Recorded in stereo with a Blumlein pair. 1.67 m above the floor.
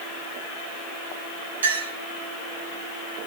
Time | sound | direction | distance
1.6 | a clink | 70° right | 6 m